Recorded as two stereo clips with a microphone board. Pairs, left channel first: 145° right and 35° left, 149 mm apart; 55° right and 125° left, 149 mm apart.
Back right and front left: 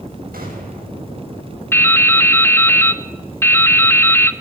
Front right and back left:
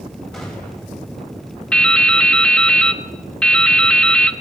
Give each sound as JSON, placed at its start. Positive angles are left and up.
{"t": 0.3, "sound": "a gunshot", "azimuth_deg": 30, "distance_m": 8.5}
{"t": 1.7, "sound": "dripping", "azimuth_deg": -120, "distance_m": 1.0}